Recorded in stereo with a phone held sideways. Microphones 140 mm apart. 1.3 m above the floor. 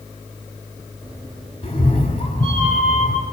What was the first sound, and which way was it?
A cat meowing, 45° left (ahead or behind).